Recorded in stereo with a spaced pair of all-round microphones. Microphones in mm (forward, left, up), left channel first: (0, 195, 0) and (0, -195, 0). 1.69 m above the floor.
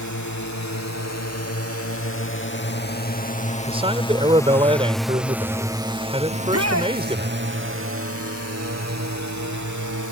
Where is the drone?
45° left (ahead or behind); by 10.1 s 50° right (ahead or behind).